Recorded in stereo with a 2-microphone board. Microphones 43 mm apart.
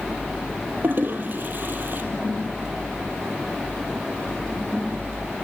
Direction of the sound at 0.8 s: 50° right (ahead or behind).